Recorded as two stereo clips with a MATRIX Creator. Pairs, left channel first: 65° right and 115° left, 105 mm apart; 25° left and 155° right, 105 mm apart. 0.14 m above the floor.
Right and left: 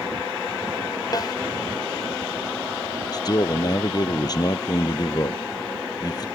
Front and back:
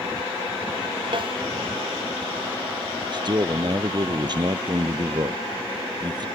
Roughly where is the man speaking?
Behind right.